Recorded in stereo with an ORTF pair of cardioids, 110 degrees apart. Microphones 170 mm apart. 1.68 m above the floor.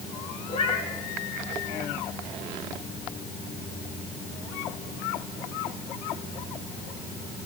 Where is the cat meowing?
35° left, 8.5 m.